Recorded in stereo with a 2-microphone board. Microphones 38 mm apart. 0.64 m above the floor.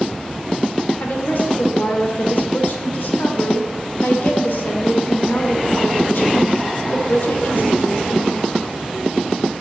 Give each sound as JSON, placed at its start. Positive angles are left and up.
{"t": 1.0, "sound": "a woman speaking", "side_deg": 60, "distance_m": 2.5}